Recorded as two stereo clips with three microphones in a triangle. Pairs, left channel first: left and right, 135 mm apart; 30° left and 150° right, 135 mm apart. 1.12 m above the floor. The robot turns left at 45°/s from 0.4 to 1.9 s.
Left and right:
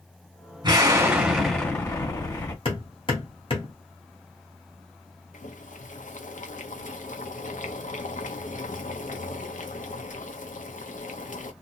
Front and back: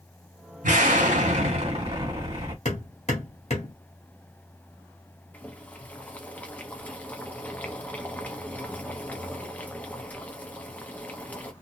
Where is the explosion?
145° right, 1.4 m; by 2.5 s 160° left, 1.4 m.